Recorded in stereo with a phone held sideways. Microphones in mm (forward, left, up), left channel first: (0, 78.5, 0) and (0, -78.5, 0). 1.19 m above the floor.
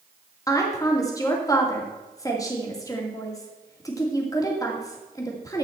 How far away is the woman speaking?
About 2.5 m.